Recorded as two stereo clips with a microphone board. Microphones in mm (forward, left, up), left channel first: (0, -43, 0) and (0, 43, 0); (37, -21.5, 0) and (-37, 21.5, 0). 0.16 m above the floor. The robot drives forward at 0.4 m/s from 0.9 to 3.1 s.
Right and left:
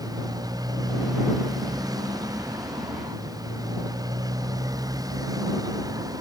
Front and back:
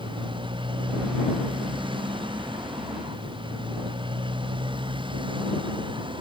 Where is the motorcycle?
135° left.